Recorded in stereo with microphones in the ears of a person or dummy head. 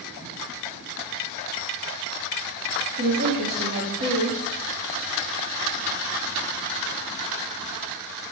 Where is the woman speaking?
60° right (ahead or behind), 0.8 m.